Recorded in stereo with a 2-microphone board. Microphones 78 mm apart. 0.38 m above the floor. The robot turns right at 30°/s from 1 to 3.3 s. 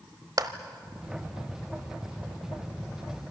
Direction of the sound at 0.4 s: 55° right (ahead or behind).